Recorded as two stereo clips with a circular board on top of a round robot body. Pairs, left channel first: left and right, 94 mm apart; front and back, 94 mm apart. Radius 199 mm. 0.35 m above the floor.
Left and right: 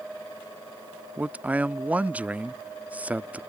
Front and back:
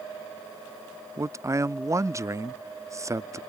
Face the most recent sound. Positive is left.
turn(degrees=-155)